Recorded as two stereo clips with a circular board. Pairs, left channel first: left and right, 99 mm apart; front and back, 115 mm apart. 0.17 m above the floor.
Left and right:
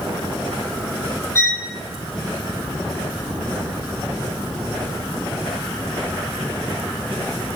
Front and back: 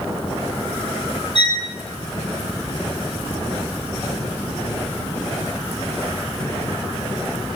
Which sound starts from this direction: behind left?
A violin, at 1.4 s.